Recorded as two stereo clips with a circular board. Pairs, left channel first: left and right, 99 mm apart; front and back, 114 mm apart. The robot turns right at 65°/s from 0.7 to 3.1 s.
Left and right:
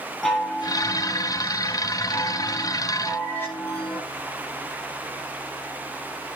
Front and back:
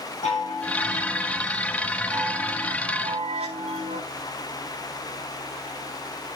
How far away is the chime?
About 9.5 m.